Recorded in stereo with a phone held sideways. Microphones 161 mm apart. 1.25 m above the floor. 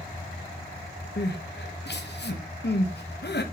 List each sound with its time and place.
1.2 s crying: 85° left, 1.2 m